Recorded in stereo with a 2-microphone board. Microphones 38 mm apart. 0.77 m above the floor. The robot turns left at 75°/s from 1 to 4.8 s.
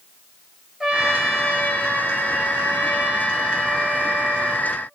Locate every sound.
0.8 s a trumpet: 160° right, 3 m; by 4.7 s 80° right, 3 m